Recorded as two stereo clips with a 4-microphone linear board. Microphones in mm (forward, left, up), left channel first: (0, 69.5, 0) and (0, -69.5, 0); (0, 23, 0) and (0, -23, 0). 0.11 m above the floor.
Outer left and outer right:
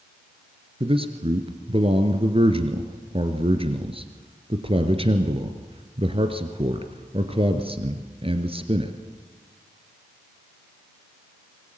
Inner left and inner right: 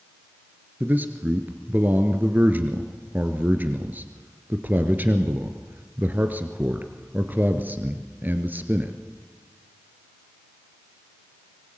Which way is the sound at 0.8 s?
40° right (ahead or behind).